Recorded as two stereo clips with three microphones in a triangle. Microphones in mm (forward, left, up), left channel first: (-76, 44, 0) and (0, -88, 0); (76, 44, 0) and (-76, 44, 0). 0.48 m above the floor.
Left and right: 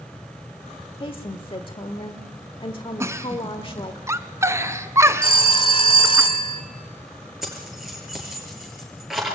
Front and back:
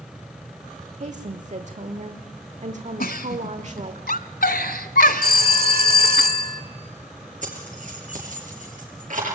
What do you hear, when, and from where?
1.0 s a woman speaking: 165° left, 1.3 m
3.0 s a giggle: 10° left, 1.0 m
5.2 s a phone ringing: 175° left, 1.6 m
7.4 s keys jangling: 150° right, 6 m